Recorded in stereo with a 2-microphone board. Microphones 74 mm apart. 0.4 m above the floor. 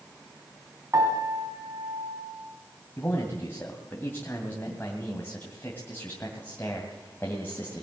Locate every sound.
0.9 s a piano: 45° right (ahead or behind), 3.5 m
3.0 s a man speaking: 25° left (ahead or behind), 2 m